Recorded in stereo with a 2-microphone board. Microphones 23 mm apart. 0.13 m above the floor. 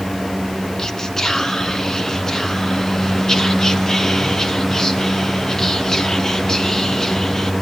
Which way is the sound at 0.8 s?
20° left (ahead or behind).